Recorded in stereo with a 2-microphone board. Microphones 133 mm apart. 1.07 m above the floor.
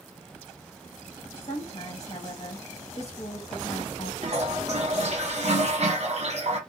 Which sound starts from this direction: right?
A toilet flushing, at 4.2 s.